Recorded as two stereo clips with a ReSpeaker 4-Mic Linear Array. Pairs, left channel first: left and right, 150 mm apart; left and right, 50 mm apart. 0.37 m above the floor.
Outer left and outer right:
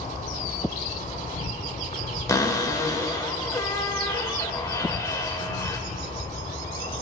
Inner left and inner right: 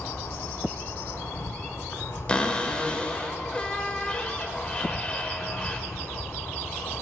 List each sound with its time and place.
0.0 s an insect: 55° left (ahead or behind), 2.5 m
2.3 s a cupboard door: 20° left (ahead or behind), 0.8 m